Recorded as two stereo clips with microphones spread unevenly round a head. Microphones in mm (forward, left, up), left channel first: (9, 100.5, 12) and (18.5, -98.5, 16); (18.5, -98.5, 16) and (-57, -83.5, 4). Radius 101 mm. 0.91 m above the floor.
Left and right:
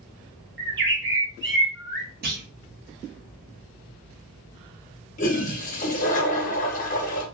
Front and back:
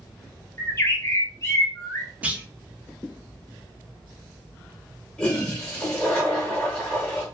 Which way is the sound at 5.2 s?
55° left.